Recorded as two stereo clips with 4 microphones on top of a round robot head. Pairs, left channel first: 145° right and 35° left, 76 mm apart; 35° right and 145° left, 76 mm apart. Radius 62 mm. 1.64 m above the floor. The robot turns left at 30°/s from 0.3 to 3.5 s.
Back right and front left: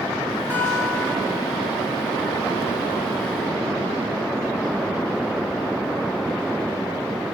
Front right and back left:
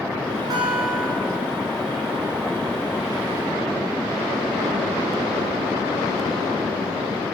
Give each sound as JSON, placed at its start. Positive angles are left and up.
{"t": 0.5, "sound": "a guitar", "azimuth_deg": 100, "distance_m": 4.5}